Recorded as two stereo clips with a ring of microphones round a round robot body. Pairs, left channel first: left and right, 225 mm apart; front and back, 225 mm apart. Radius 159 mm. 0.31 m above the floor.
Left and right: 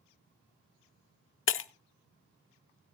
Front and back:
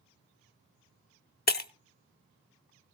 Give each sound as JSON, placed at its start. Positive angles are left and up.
{"t": 1.5, "sound": "breaking glass", "azimuth_deg": 50, "distance_m": 0.7}